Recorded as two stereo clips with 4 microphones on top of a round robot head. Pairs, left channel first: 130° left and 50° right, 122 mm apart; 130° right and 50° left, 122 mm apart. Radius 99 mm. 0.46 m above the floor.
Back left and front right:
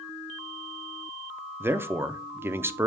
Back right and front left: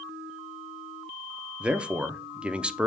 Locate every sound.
1.6 s a man speaking: 15° right, 0.7 m